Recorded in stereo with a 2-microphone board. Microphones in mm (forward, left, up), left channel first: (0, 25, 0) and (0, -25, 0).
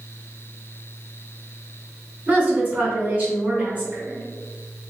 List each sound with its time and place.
2.3 s a woman speaking: 30° right (ahead or behind), 1.5 m